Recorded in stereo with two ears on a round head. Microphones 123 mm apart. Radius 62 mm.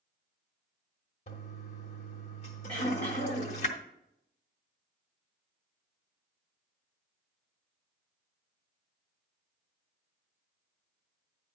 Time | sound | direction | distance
1.3 | a toilet flushing | 50° left (ahead or behind) | 1.3 m
2.7 | throat clearing | 10° left (ahead or behind) | 5 m